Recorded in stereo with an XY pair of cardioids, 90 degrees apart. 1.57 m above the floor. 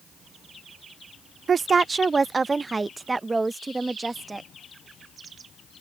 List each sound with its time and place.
1.5 s a woman speaking: 50° right; by 4.5 s 25° right